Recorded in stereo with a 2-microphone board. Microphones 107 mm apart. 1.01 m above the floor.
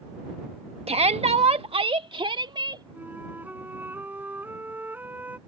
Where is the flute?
20° right (ahead or behind).